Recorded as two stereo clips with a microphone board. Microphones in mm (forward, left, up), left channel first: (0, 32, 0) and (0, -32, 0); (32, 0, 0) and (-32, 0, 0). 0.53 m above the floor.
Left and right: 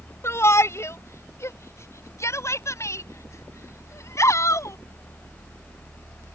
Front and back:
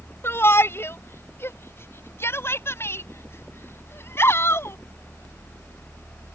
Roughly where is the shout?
Ahead left.